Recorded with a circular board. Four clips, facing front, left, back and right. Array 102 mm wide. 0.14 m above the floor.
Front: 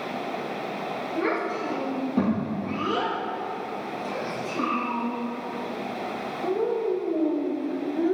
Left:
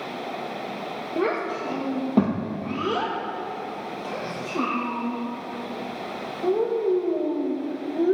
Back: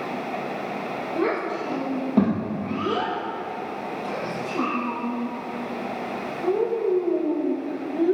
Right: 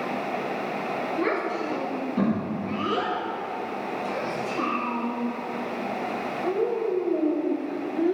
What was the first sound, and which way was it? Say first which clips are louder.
A child speaking: left 3 dB, back 2 dB; 115° left.